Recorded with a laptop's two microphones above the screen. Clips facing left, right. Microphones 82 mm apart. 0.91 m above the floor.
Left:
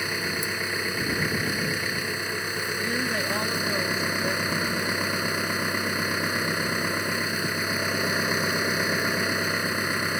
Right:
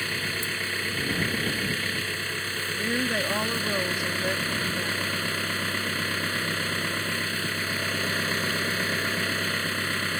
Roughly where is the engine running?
Centre.